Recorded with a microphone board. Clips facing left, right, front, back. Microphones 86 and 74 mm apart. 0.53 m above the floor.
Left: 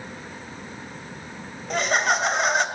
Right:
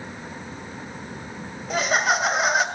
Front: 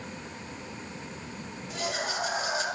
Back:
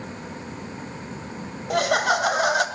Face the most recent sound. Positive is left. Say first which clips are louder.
# even, back 12 dB
turn(degrees=-175)